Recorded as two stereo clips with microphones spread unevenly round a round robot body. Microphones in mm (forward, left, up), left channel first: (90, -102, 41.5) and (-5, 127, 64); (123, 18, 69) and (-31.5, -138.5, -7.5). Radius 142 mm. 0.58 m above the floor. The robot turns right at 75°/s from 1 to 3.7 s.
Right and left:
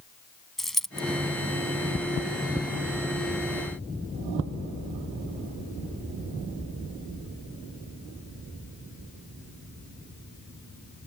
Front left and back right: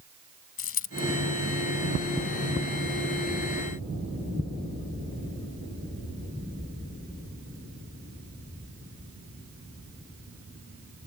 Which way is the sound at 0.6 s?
20° left.